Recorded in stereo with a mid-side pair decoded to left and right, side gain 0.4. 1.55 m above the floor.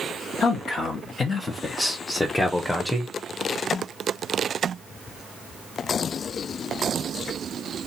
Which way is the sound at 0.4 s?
65° left.